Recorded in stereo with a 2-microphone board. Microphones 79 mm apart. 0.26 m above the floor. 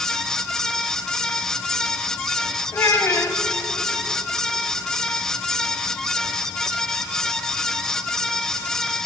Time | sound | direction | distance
2.7 | a child speaking | 30° left (ahead or behind) | 0.7 m